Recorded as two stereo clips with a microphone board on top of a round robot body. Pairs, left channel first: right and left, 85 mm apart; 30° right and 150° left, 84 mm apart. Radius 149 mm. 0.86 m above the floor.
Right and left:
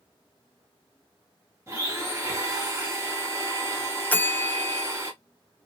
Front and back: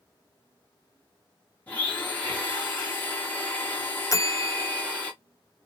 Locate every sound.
1.7 s a blender: 40° left, 1.5 m
4.1 s a bell: 35° right, 0.5 m